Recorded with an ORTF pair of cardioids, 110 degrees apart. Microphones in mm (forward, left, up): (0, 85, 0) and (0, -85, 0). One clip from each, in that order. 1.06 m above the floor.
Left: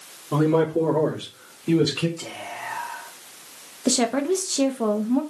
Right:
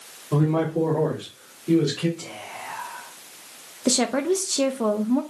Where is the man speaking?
5° left, 2 m; by 2.1 s 60° left, 2.5 m.